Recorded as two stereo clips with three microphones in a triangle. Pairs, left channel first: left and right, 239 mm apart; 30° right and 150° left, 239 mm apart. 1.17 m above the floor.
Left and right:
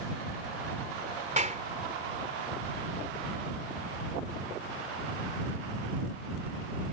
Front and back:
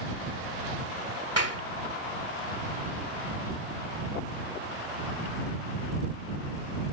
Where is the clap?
30° right.